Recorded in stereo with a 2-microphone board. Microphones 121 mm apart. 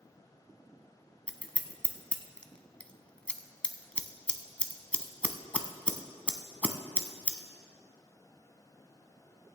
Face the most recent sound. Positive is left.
turn(degrees=10)  # may be behind; listen again after turning